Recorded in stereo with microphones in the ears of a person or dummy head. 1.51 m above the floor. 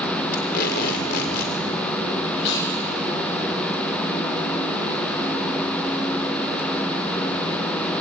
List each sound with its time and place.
0.3 s tape being pulled: 55° left (ahead or behind), 3 m
2.4 s chewing: 70° left (ahead or behind), 9.5 m